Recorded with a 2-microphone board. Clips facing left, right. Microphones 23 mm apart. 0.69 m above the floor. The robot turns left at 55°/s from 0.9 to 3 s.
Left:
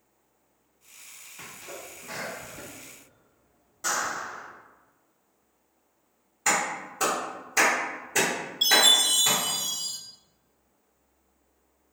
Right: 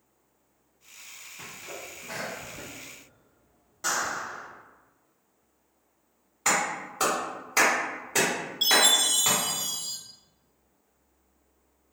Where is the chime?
10° right (ahead or behind), 0.9 m.